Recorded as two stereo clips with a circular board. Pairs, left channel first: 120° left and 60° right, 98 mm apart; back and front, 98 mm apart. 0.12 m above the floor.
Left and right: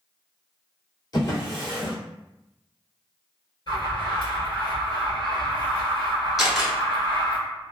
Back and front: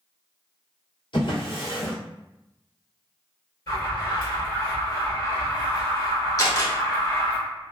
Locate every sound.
1.1 s a drawer: 165° left, 1.5 m
3.7 s an alarm: 140° left, 1.8 m
6.4 s a camera shutter: 150° right, 0.9 m